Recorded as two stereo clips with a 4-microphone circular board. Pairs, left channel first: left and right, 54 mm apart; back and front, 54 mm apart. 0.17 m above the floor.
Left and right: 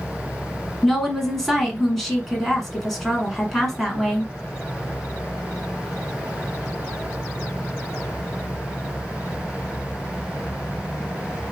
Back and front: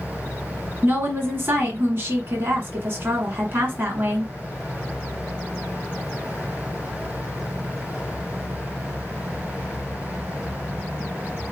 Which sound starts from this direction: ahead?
A woman speaking, at 0.8 s.